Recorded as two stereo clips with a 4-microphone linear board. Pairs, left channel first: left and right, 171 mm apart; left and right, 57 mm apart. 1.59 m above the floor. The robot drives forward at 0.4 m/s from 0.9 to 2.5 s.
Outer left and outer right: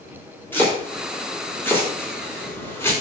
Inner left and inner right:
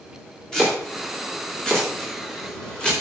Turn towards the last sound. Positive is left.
turn(degrees=15)  # may be behind; listen again after turning